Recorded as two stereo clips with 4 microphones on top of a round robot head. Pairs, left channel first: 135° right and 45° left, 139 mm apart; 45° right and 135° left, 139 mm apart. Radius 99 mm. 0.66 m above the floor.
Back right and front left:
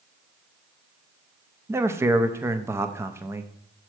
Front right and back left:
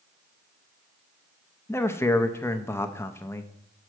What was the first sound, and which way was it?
A man speaking, straight ahead.